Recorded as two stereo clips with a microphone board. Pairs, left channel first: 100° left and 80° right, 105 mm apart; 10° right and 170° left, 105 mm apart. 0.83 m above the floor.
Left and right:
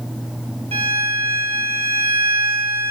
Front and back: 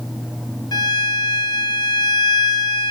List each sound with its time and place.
0.7 s a violin: 60° right, 1.6 m